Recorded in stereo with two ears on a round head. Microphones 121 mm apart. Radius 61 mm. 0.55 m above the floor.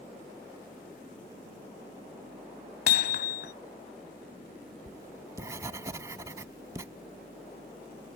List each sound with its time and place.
2.9 s hammering: 80° left
4.9 s writing: 25° right (ahead or behind)